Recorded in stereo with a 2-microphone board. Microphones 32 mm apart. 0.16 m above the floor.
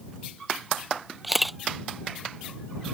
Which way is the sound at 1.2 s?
Centre (ahead or behind).